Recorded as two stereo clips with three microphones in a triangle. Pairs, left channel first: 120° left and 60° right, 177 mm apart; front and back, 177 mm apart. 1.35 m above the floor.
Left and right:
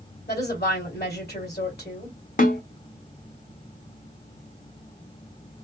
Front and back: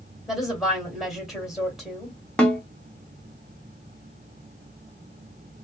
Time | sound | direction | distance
0.3 | a woman speaking | 90° left | 2 m
2.4 | a snare drum | 85° left | 1.0 m